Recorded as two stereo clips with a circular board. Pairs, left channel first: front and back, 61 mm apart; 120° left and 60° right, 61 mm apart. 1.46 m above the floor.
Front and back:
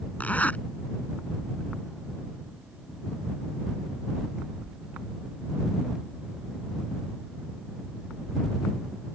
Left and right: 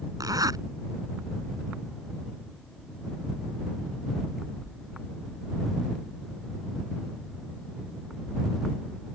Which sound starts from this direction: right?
A zipper, at 0.2 s.